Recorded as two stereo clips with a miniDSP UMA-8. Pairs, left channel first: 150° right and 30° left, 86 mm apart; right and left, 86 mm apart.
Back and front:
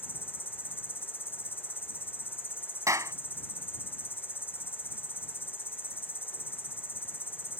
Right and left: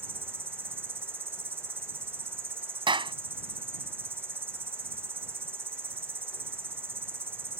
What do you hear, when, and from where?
0.0 s an insect: 150° left
2.9 s a clap: 80° left